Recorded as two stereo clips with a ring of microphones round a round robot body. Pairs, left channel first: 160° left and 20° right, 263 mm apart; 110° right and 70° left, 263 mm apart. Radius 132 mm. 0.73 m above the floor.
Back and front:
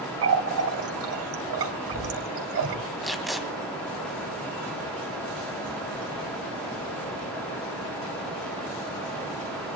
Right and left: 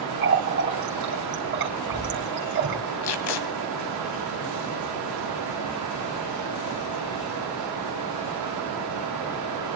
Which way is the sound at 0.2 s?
15° left.